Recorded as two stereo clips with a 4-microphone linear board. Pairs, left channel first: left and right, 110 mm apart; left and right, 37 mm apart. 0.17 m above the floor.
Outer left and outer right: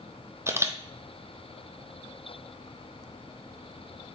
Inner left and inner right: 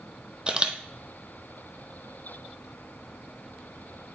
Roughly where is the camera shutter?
Right.